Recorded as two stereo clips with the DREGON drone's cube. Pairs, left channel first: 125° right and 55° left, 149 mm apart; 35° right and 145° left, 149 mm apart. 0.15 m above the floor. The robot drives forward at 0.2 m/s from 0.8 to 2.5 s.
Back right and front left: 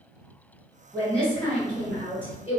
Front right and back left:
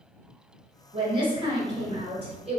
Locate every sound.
0.9 s a woman speaking: 155° left, 1.3 m; by 2.6 s 165° left, 1.5 m